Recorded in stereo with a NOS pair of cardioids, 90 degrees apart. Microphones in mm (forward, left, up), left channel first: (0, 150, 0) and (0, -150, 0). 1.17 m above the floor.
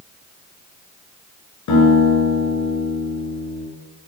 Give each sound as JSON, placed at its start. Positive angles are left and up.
{"t": 1.7, "sound": "a guitar", "azimuth_deg": 70, "distance_m": 6.0}